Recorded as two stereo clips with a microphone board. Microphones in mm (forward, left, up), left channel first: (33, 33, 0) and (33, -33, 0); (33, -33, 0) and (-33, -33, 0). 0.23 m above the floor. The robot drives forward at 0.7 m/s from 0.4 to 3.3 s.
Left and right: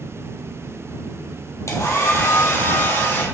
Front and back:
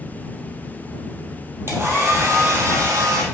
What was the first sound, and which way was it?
A hair dryer, 130° left.